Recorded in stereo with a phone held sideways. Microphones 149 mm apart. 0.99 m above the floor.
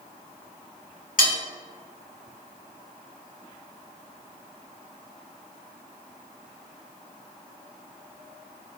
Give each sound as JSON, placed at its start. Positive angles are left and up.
{"t": 1.2, "sound": "cutlery clinking", "side_deg": 65, "distance_m": 1.9}